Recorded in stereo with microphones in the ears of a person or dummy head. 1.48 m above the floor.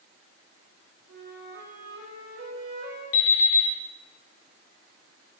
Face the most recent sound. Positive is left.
turn(degrees=65)  # may be behind; listen again after turning